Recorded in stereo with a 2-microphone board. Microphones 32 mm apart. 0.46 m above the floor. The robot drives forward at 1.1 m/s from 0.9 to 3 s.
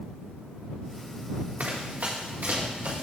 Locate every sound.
1.6 s running footsteps: 55° right (ahead or behind), 2 m; by 3.0 s 70° right (ahead or behind), 4 m